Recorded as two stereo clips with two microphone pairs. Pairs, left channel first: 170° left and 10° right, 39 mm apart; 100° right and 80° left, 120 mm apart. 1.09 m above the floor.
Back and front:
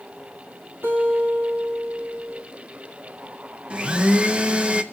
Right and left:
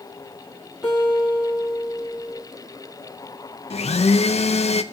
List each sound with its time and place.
0.8 s a guitar: 5° right, 2.5 m
3.7 s a blender: 70° right, 0.5 m